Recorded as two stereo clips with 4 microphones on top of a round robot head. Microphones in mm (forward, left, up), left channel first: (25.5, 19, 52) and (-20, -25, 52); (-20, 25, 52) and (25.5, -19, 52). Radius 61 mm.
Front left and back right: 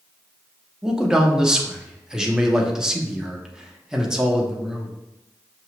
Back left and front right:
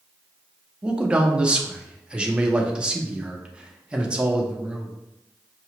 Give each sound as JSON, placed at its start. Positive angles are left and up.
{"t": 0.8, "sound": "a man speaking", "azimuth_deg": -80, "distance_m": 0.8}